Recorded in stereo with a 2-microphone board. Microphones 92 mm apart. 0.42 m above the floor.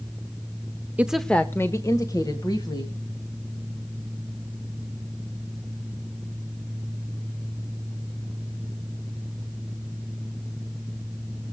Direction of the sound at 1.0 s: 15° right (ahead or behind).